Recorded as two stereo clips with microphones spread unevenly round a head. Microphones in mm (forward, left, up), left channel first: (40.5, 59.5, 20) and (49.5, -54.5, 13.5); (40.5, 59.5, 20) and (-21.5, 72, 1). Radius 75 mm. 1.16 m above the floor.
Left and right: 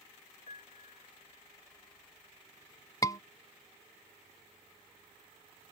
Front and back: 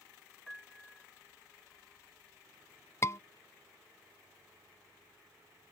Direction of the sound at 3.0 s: 40° left.